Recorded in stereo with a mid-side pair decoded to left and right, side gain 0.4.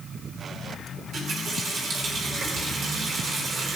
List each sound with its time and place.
1.0 s a running tap: 60° right, 3.5 m